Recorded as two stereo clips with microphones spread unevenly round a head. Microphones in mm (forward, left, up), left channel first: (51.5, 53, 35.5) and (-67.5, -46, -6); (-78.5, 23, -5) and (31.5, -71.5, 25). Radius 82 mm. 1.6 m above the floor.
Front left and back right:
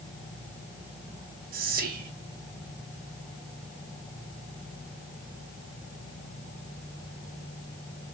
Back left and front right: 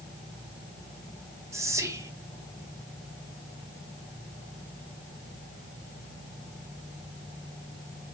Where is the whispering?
100° right, 0.9 m.